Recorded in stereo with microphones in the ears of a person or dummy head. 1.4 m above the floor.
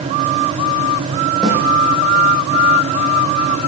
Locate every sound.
1.4 s a snare drum: 5° left (ahead or behind), 9.5 m